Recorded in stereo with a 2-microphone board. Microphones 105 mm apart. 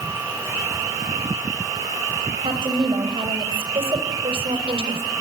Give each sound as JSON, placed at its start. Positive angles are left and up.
{"t": 2.4, "sound": "a woman speaking", "side_deg": -70, "distance_m": 5.5}